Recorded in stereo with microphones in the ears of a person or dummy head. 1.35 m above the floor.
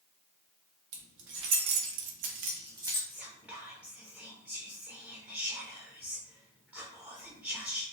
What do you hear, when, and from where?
0.9 s keys jangling: 65° right (ahead or behind), 1.2 m; by 3.0 s 15° right (ahead or behind), 0.8 m
3.1 s whispering: 5° right (ahead or behind), 0.6 m